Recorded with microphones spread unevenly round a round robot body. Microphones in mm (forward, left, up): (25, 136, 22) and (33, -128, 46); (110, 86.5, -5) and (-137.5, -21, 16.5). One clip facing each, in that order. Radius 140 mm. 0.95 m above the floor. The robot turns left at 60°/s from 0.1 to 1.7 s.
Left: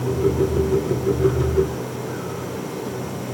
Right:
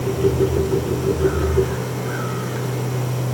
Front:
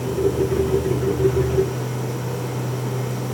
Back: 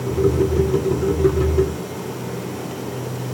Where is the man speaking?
I don't hear a man speaking.